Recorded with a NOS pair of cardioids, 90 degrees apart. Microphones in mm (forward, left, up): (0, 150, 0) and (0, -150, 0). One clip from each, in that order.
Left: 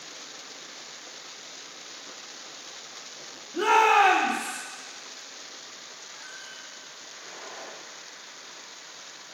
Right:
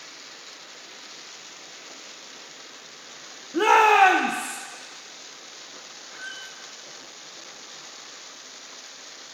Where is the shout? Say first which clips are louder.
Right 3 dB; 35° right, 0.9 m; by 4.6 s 75° right, 1.3 m.